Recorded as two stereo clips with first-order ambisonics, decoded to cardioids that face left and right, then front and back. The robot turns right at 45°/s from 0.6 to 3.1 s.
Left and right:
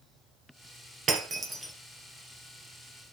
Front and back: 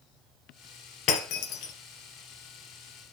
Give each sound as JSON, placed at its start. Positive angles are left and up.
{"t": 1.1, "sound": "breaking glass", "azimuth_deg": -30, "distance_m": 2.0}